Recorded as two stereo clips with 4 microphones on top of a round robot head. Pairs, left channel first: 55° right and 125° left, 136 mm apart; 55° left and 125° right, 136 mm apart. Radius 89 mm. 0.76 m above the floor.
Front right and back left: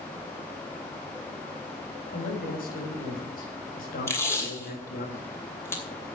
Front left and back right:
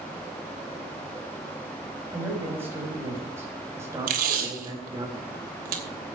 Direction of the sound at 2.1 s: 50° right.